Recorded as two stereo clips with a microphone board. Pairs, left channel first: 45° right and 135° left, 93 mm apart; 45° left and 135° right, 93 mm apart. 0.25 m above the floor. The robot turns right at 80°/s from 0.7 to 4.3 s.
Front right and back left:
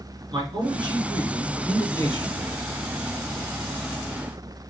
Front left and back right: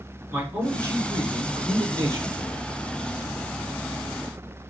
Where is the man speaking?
155° left, 2.5 m; by 2.6 s 50° right, 2.5 m.